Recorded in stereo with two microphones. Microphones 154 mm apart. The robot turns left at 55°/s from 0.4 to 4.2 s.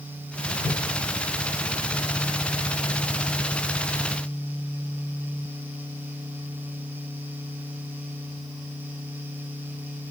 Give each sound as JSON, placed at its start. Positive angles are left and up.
{"t": 0.6, "sound": "a whoosh", "side_deg": 40, "distance_m": 0.8}